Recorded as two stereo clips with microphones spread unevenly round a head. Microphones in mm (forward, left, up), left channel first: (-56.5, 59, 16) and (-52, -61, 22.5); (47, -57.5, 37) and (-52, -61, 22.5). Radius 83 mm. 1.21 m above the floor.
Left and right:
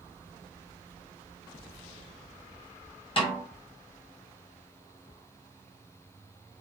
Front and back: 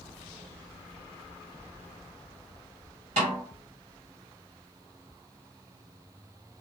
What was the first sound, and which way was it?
A snare drum, 135° left.